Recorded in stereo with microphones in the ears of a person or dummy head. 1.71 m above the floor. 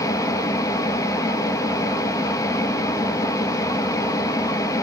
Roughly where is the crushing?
I don't hear crushing.